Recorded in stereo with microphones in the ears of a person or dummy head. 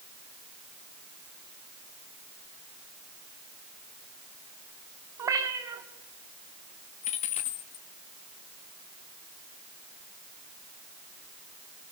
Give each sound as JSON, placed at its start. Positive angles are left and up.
{"t": 5.2, "sound": "a cat meowing", "side_deg": -15, "distance_m": 1.3}
{"t": 7.0, "sound": "a dropped coin", "side_deg": 30, "distance_m": 1.3}